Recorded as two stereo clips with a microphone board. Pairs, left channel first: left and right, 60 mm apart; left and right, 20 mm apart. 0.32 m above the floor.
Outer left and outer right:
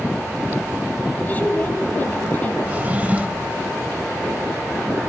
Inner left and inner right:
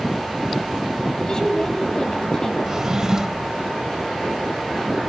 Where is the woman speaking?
30° left (ahead or behind), 2.5 m.